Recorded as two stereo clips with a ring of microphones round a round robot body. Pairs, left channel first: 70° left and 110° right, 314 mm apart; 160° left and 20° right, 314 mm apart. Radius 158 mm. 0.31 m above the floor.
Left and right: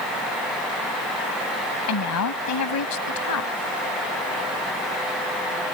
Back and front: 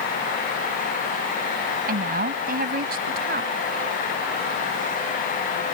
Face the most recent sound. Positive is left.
turn(degrees=40)